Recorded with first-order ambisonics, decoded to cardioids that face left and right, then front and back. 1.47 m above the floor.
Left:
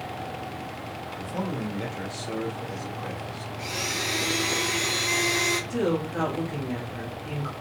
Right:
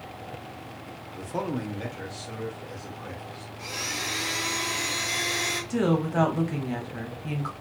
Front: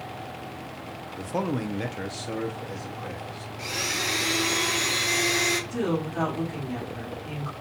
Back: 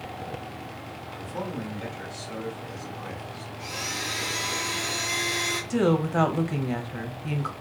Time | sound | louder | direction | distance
1.1 | a man speaking | right 2 dB, front 6 dB | 30° right | 0.6 m
3.6 | a blender | left 2 dB, front 4 dB | 20° left | 0.8 m
5.7 | a woman speaking | right 1 dB, back 4 dB | 155° right | 0.8 m